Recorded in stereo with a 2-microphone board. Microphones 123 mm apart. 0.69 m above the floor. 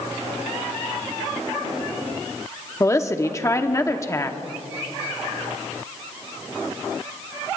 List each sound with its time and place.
2.8 s a woman speaking: 25° left (ahead or behind), 0.9 m